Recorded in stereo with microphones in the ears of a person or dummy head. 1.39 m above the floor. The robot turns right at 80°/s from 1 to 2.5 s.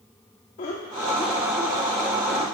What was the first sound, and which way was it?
Laughter, 40° left (ahead or behind).